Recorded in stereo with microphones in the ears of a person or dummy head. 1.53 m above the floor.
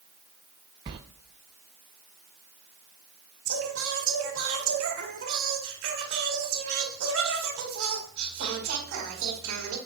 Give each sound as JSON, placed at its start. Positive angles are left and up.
{"t": 0.9, "sound": "a sliding door", "side_deg": -30, "distance_m": 0.6}
{"t": 3.5, "sound": "singing", "side_deg": -75, "distance_m": 2.5}